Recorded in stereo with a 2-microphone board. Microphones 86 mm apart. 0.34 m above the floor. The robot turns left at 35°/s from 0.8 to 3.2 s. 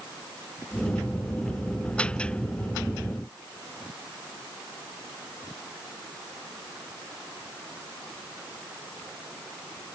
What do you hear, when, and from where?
Only background noise.